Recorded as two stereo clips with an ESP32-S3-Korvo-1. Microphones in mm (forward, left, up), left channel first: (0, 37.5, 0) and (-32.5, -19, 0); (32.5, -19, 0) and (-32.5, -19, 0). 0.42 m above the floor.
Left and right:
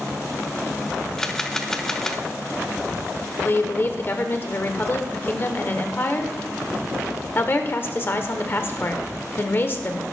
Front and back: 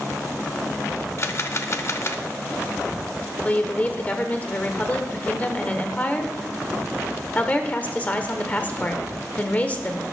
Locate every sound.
1.2 s a camera shutter: 15° right, 0.7 m
3.4 s a woman speaking: 45° left, 1.0 m